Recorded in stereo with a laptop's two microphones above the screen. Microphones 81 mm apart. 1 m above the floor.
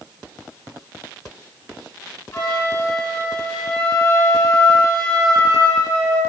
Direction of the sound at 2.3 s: 35° left (ahead or behind).